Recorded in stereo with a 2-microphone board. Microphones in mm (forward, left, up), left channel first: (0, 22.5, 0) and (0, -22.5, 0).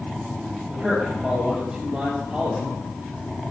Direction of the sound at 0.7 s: 20° right (ahead or behind).